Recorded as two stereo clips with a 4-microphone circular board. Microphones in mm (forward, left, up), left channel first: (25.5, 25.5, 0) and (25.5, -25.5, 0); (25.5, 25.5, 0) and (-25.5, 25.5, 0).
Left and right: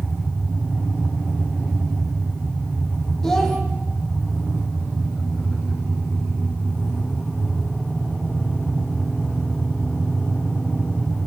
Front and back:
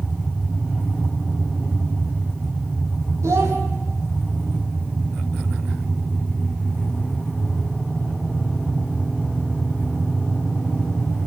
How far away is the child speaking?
About 6 m.